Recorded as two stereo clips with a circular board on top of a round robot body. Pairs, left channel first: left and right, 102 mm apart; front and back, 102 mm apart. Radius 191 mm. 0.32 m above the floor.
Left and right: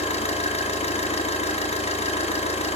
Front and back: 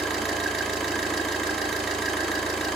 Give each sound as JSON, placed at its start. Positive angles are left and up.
{"t": 0.0, "sound": "an engine running", "azimuth_deg": 85, "distance_m": 4.5}